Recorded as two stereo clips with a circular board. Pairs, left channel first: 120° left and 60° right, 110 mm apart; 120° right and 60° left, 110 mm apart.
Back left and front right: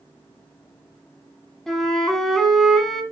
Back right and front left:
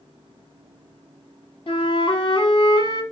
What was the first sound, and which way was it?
A flute, 155° right.